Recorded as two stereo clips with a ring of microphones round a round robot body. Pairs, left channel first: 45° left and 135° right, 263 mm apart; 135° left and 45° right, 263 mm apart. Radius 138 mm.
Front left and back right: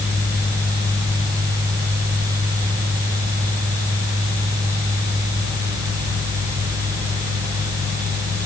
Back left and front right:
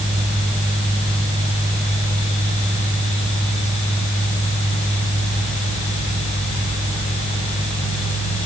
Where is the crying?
No crying in this recording.